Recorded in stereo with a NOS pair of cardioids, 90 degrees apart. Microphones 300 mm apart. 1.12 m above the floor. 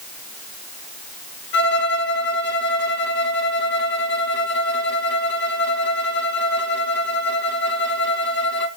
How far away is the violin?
About 2.5 m.